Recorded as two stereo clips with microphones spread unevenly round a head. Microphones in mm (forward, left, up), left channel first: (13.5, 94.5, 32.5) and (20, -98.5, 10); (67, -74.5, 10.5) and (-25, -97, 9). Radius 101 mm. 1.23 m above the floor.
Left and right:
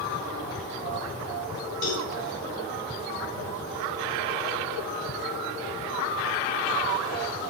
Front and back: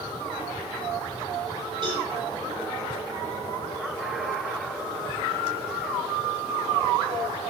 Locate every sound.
1.8 s a cowbell: 125° left, 3.5 m